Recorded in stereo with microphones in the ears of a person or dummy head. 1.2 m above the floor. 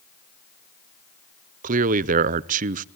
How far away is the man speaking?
About 0.5 m.